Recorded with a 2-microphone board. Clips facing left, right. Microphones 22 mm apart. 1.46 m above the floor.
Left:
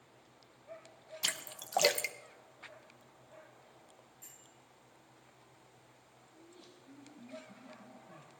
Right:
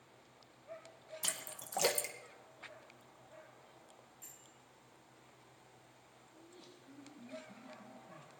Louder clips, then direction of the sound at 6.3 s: Left 1 dB; centre (ahead or behind).